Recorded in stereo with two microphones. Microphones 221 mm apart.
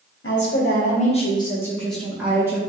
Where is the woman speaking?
65° left (ahead or behind), 1.4 m; by 2.6 s 15° right (ahead or behind), 1.9 m.